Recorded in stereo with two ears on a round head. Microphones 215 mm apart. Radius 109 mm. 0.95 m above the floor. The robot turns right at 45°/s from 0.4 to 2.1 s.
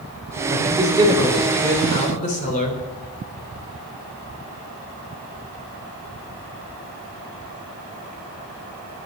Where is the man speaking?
40° right, 3.5 m; by 2.8 s 30° left, 3.5 m.